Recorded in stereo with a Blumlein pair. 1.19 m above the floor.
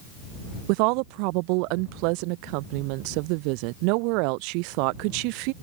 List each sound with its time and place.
0.7 s a woman speaking: 45° right